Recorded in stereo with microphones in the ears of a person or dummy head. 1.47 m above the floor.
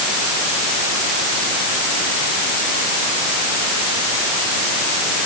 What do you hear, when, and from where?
Only background noise.